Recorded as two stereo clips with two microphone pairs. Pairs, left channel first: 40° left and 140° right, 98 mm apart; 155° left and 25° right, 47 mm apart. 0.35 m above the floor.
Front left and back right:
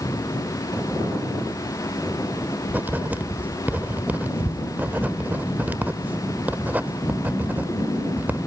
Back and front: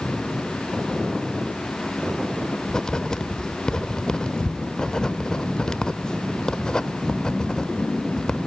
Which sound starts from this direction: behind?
Writing, at 2.7 s.